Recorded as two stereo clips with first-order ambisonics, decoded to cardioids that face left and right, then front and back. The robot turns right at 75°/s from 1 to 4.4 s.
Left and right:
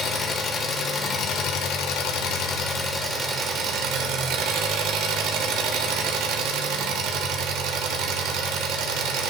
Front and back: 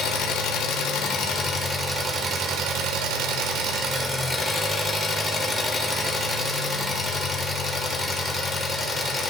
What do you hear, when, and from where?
0.0 s an engine running: 20° left, 1.1 m; by 9.3 s 85° right, 1.1 m